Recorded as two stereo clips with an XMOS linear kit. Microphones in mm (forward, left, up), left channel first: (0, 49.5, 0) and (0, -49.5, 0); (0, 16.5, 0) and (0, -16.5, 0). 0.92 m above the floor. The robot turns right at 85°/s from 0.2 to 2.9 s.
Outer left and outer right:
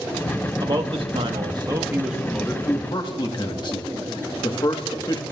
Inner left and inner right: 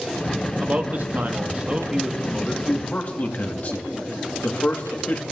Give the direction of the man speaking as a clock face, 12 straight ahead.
5 o'clock.